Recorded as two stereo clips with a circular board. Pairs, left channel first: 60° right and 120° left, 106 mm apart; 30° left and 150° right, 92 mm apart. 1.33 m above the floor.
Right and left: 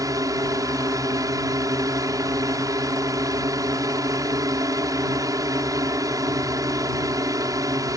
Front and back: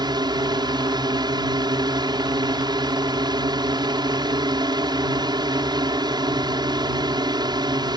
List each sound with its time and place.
0.0 s a drone: 175° left